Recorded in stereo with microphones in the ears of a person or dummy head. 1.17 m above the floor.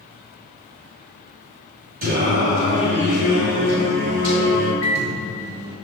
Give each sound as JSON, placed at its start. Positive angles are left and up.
{"t": 2.0, "sound": "singing", "side_deg": -45, "distance_m": 1.1}
{"t": 4.8, "sound": "a microwave", "side_deg": 15, "distance_m": 1.5}